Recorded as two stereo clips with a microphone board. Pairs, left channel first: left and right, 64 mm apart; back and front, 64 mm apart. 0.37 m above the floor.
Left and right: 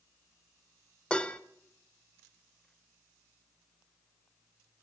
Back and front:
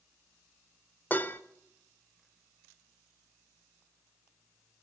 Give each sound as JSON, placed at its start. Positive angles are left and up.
{"t": 1.1, "sound": "dishes clattering", "azimuth_deg": 155, "distance_m": 0.7}